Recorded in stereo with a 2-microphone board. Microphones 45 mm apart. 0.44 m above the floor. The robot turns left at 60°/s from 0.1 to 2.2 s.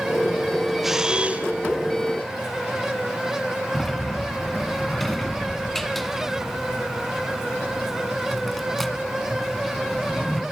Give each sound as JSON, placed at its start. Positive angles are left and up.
{"t": 0.8, "sound": "a camera shutter", "azimuth_deg": -5, "distance_m": 1.9}
{"t": 3.7, "sound": "a sliding door", "side_deg": 5, "distance_m": 1.6}